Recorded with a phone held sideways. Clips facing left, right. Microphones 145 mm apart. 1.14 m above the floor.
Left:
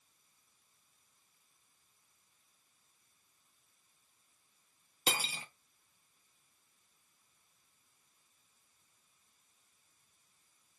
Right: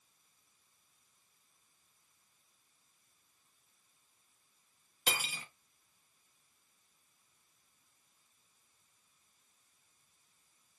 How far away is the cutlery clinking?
About 0.5 m.